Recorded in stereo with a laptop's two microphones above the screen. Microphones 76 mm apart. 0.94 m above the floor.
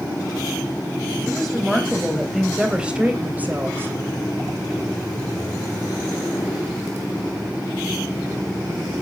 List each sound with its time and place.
1.2 s a woman speaking: 5° left (ahead or behind), 5 m; by 3.9 s 30° right (ahead or behind), 3.5 m